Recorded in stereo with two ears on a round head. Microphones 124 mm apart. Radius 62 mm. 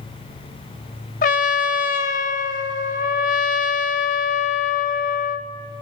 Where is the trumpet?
65° left (ahead or behind), 0.9 m.